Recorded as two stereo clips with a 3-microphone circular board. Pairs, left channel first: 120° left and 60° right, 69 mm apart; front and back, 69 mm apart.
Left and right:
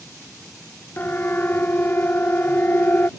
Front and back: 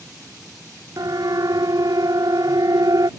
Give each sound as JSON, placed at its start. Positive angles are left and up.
{"t": 1.0, "sound": "a siren", "azimuth_deg": 175}